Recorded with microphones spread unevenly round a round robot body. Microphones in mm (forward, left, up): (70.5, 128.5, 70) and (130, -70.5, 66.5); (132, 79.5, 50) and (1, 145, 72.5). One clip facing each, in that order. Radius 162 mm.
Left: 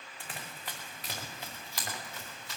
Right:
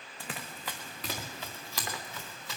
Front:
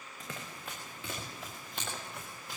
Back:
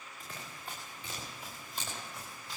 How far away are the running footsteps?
About 1.9 m.